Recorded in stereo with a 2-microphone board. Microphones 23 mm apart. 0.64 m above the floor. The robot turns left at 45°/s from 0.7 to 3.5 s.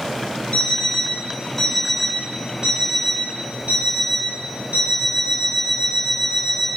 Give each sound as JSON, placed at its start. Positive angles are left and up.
{"t": 0.5, "sound": "an alarm clock", "azimuth_deg": 50, "distance_m": 2.5}